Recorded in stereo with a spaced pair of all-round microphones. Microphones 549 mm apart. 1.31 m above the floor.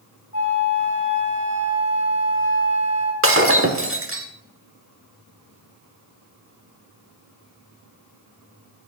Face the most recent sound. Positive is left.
turn(degrees=-25)  # may be behind; listen again after turning